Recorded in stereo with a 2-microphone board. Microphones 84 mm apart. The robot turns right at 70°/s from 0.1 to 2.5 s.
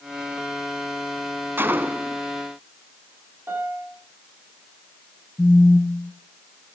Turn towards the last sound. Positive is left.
turn(degrees=15)  # may be behind; listen again after turning